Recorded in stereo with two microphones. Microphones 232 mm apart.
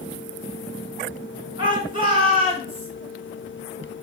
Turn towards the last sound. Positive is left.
turn(degrees=-20)  # may be behind; listen again after turning